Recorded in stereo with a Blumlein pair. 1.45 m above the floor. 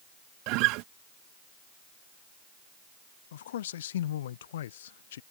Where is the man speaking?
60° left.